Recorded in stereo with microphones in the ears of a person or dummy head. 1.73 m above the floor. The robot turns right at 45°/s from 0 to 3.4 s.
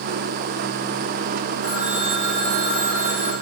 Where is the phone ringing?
130° right, 4.5 m; by 3.3 s 55° right, 4.5 m.